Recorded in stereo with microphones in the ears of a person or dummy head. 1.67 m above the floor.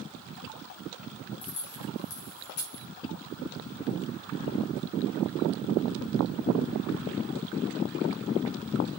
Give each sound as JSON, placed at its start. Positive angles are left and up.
{"t": 1.4, "sound": "keys jangling", "side_deg": 75, "distance_m": 2.5}